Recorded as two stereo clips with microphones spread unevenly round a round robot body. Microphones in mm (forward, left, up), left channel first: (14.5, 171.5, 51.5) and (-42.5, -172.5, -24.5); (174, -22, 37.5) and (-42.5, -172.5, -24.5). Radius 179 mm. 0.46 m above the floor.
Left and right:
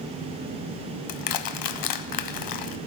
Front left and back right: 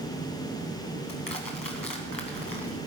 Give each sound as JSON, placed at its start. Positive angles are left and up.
{"t": 1.1, "sound": "crushing", "azimuth_deg": 100, "distance_m": 0.6}